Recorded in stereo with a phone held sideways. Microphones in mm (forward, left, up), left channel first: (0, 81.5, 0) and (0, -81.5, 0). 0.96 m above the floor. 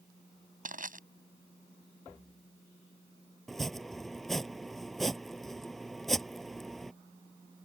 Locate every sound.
0.7 s crushing: 60° right (ahead or behind)
3.5 s chopping: centre (ahead or behind)